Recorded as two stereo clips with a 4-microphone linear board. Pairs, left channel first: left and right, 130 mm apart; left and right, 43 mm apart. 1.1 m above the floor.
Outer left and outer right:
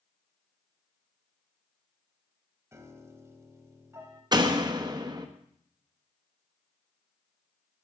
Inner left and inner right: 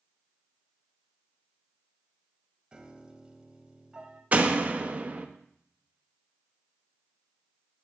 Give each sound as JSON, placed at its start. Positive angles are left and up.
{"t": 2.7, "sound": "a piano", "side_deg": -20, "distance_m": 1.2}
{"t": 4.3, "sound": "a door slam", "side_deg": -35, "distance_m": 0.9}